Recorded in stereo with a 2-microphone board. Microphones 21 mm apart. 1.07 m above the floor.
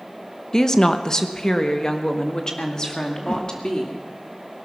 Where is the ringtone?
No ringtone in this recording.